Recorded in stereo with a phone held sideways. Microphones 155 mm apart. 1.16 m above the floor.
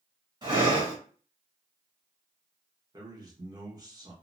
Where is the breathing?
30° right (ahead or behind), 1.4 m.